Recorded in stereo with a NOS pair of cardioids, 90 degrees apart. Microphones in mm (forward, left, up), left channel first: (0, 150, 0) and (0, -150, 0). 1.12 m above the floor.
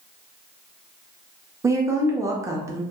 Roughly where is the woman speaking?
Ahead.